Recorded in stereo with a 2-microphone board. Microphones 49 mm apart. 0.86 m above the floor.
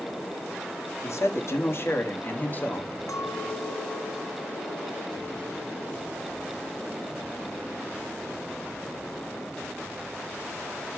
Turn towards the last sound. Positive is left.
turn(degrees=90)